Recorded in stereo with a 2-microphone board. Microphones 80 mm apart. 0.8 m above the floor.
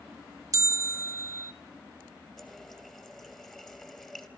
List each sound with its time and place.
0.5 s a bell: 40° right (ahead or behind), 0.8 m
2.4 s a running tap: 5° left (ahead or behind), 2.5 m